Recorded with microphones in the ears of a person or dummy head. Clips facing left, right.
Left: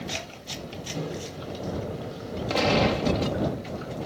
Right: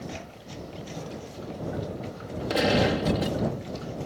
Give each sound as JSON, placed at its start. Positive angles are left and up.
{"t": 0.9, "sound": "a microwave", "side_deg": 45}
{"t": 2.5, "sound": "a gunshot", "side_deg": -15}